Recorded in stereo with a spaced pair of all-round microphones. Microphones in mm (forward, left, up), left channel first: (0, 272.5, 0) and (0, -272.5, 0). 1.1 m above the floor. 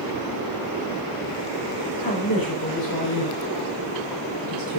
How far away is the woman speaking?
About 4.5 m.